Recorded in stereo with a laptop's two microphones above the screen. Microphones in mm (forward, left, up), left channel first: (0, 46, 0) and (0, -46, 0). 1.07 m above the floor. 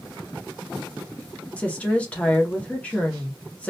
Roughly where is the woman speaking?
Centre.